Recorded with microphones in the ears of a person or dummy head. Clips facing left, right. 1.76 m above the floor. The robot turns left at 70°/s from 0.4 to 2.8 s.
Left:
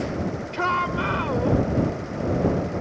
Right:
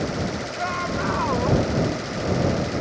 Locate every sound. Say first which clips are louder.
0.5 s a shout: left 1 dB; 75° left; by 1.6 s 5° left